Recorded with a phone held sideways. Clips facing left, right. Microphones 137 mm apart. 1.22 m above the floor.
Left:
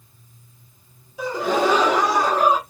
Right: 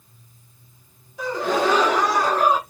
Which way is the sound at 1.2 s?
5° left (ahead or behind).